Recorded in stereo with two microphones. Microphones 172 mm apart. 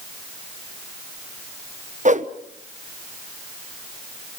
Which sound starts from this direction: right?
A whoosh, at 2.0 s.